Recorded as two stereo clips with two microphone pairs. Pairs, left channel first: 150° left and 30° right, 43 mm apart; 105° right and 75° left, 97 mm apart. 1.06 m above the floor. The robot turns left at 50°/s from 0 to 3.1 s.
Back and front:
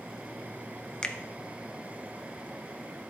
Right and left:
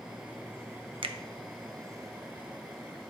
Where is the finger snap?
80° left, 0.5 m; by 1.1 s 75° left, 0.5 m.